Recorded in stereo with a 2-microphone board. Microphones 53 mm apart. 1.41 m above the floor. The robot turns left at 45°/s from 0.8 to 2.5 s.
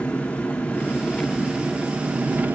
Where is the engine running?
30° left, 0.7 m; by 2.5 s 45° right, 0.7 m.